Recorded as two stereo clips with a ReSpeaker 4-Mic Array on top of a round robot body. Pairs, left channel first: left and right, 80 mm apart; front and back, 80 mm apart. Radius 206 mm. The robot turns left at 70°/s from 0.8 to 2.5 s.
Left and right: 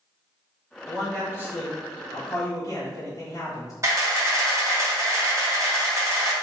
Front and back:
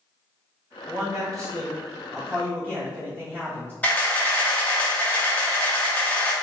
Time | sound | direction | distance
0.9 | a man speaking | straight behind | 1.9 m
3.8 | a camera shutter | 65° right | 1.3 m